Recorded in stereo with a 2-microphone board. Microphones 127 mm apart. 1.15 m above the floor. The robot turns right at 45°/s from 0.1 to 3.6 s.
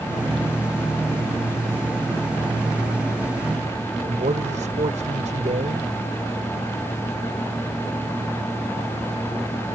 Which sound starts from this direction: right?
A man speaking, at 4.0 s.